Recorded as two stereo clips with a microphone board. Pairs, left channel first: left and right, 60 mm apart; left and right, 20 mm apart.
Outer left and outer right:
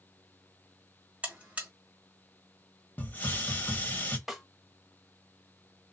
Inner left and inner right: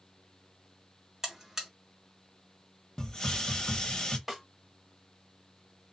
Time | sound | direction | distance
1.2 | a buzzer | 20° right (ahead or behind) | 1.2 m
3.0 | a hiss | 30° left (ahead or behind) | 0.8 m
4.3 | a snare drum | 5° right (ahead or behind) | 0.7 m